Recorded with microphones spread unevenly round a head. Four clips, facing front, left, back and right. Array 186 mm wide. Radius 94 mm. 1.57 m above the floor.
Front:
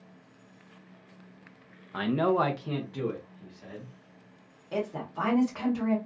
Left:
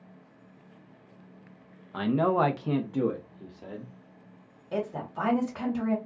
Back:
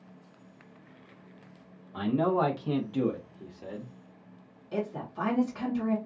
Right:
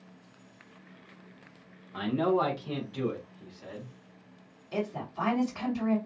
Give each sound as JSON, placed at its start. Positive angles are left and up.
{"t": 1.9, "sound": "a man speaking", "azimuth_deg": 45, "distance_m": 0.6}
{"t": 4.7, "sound": "a woman speaking", "azimuth_deg": 60, "distance_m": 1.3}